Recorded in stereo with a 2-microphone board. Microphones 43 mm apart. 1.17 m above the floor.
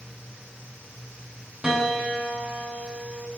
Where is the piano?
10° right (ahead or behind), 4.5 m.